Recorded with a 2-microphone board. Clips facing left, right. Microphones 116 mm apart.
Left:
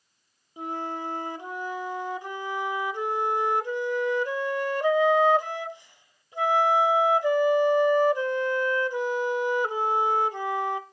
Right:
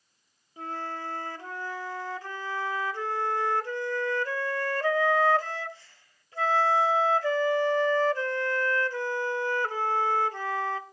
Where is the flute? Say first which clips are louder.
Left 3 dB; 20° left (ahead or behind), 0.7 m.